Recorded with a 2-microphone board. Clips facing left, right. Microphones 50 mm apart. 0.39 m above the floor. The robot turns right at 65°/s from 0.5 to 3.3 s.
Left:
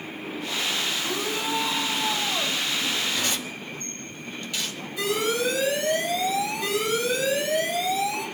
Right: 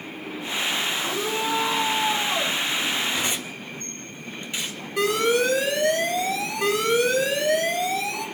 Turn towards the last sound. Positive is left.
turn(degrees=-70)  # may be behind; listen again after turning